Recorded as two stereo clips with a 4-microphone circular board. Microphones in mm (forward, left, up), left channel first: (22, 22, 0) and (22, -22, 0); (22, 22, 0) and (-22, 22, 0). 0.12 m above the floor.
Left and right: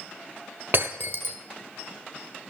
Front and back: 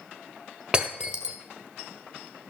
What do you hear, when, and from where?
0.7 s breaking glass: 110° right, 1.2 m